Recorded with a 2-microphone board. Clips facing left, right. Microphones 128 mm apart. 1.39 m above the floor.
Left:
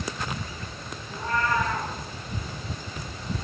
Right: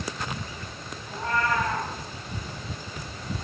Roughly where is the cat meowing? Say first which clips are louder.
Even; right.